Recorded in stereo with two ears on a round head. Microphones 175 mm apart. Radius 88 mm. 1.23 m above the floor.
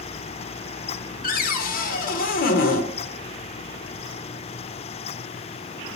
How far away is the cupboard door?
About 0.7 m.